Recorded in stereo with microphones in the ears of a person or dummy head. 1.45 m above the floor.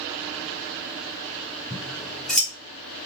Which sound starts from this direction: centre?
Scissors, at 1.7 s.